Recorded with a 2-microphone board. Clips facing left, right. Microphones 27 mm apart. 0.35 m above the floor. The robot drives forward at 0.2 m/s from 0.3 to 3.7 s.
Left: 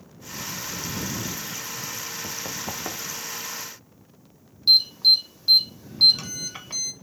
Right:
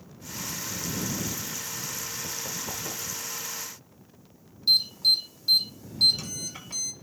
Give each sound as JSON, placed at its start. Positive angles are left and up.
{"t": 2.2, "sound": "running footsteps", "side_deg": 25, "distance_m": 1.1}
{"t": 4.7, "sound": "an alarm", "side_deg": 35, "distance_m": 1.2}